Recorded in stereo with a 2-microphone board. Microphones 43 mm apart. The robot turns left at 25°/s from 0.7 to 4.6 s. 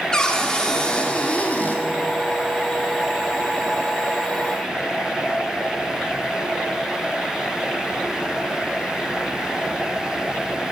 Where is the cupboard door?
15° left (ahead or behind), 1.5 m; by 1.8 s 45° left (ahead or behind), 1.5 m.